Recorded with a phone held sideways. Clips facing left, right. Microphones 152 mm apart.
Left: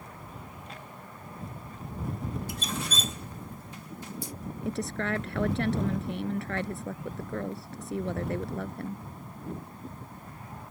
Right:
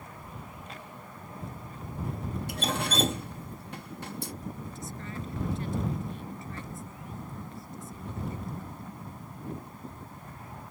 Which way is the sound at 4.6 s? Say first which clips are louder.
Left 9 dB; 75° left (ahead or behind).